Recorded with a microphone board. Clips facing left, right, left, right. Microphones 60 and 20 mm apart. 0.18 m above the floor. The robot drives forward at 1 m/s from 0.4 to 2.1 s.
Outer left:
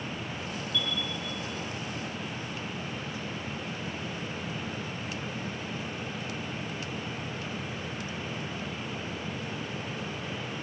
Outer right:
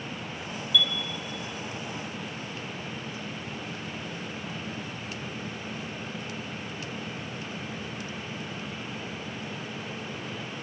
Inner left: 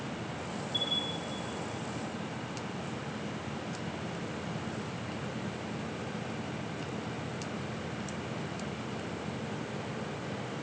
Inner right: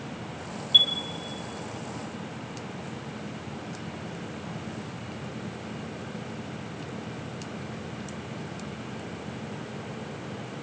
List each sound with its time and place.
0.7 s a chime: 80° right, 1.1 m